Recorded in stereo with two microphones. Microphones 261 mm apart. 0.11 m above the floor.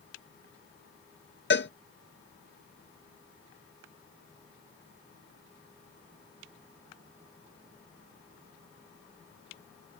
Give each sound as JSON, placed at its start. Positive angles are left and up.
{"t": 1.5, "sound": "a cowbell", "side_deg": 45}